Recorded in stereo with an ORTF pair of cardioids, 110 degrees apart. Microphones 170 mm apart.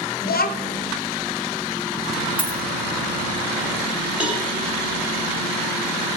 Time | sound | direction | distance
0.2 | a child speaking | 65° left | 1.1 m
2.4 | a dropped coin | 10° right | 2.5 m
4.2 | a cowbell | 5° right | 2.5 m